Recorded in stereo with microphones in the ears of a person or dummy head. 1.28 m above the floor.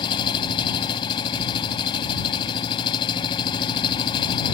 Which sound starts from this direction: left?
An engine running, at 0.0 s.